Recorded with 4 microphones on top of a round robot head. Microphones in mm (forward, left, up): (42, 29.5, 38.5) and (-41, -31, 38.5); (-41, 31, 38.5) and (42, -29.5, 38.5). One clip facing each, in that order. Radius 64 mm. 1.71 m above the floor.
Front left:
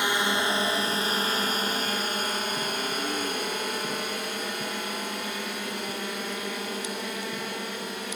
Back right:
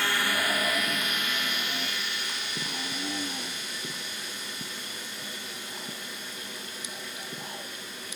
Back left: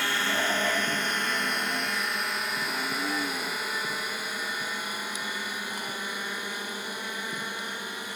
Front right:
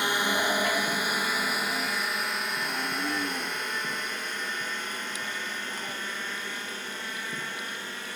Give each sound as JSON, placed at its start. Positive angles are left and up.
{"t": 0.0, "sound": "a drone", "azimuth_deg": 5}